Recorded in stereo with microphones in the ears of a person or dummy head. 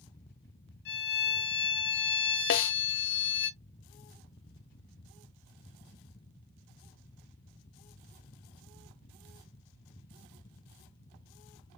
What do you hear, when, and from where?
0.8 s a violin: 65° left (ahead or behind), 4 m
2.5 s a snare drum: 60° left (ahead or behind), 0.5 m